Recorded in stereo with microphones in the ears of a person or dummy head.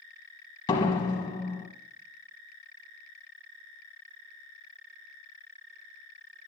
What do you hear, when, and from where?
0.7 s a door slam: 25° left (ahead or behind), 1.1 m